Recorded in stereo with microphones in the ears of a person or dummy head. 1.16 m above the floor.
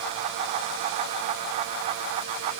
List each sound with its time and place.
Only background noise.